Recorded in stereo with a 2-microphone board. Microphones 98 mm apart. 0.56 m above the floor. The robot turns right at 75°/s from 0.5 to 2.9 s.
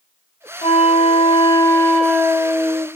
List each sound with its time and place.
0.6 s a flute: 80° left, 0.7 m; by 2.9 s 115° right, 0.7 m